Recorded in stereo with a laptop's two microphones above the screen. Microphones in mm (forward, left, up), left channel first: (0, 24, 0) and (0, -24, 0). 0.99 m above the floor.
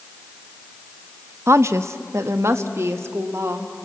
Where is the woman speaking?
70° right (ahead or behind), 0.7 m.